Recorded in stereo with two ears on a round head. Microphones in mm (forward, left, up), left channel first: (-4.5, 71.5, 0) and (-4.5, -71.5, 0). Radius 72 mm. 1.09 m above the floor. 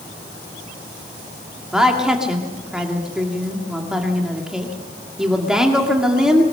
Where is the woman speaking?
5° right (ahead or behind), 1.9 m.